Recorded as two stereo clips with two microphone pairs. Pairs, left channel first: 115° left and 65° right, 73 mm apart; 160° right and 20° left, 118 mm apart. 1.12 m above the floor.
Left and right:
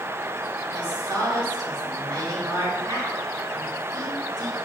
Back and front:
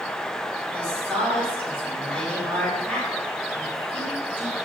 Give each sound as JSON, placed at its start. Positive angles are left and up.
{"t": 0.7, "sound": "a woman speaking", "azimuth_deg": -75, "distance_m": 5.0}